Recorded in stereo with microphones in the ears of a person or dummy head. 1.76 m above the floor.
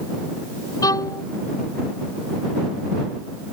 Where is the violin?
20° left (ahead or behind).